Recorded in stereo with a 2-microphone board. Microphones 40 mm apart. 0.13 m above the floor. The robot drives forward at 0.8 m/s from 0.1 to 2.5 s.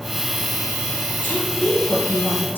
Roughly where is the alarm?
No alarm in this recording.